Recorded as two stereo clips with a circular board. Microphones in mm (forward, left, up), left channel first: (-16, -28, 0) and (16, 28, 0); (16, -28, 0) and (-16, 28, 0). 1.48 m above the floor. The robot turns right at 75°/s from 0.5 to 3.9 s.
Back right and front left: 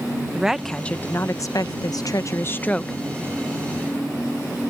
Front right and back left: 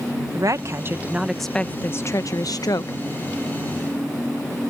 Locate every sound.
0.3 s a woman speaking: 145° left; by 3.0 s 30° right